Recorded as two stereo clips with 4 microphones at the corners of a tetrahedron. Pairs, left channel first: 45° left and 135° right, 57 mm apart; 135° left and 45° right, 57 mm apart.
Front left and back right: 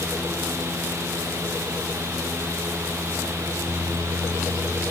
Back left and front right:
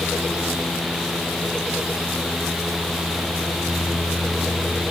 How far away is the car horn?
No car horn in this recording.